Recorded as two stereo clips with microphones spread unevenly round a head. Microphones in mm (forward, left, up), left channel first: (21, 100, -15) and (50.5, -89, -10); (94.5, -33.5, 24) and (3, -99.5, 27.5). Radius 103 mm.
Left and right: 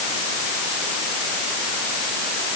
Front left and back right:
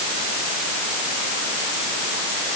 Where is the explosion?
I don't hear an explosion.